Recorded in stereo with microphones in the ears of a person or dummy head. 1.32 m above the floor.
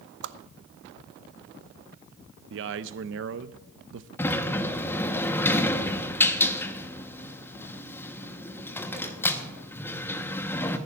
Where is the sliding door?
15° left (ahead or behind), 1.2 m.